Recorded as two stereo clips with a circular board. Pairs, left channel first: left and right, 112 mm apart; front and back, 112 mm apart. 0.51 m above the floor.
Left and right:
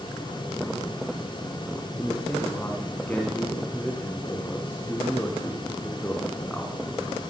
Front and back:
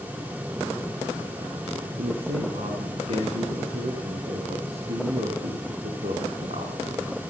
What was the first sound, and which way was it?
A man speaking, 165° left.